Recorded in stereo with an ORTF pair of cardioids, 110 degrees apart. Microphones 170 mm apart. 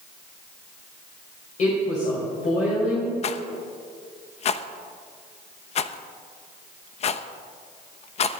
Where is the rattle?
40° left, 0.7 m.